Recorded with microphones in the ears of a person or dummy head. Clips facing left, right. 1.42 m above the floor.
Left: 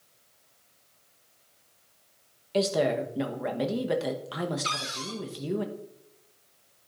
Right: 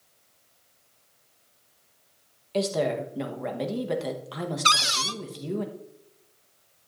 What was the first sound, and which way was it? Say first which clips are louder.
A woman speaking: left 1 dB; 5° left (ahead or behind).